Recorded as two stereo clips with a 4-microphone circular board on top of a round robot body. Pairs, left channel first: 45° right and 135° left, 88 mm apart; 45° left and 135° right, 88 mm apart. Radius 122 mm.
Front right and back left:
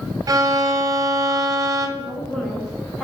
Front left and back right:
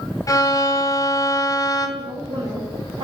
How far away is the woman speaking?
About 3.5 m.